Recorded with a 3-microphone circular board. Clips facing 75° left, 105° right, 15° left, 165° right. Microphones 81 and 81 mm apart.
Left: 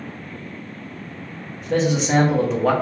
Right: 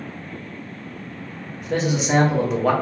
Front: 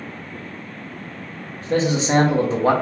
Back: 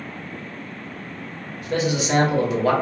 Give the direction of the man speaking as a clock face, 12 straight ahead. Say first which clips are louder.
Left 2 dB, front 3 dB; 1 o'clock.